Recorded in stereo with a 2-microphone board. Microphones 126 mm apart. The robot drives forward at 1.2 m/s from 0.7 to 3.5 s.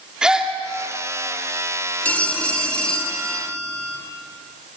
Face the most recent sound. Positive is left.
turn(degrees=5)  # may be behind; listen again after turning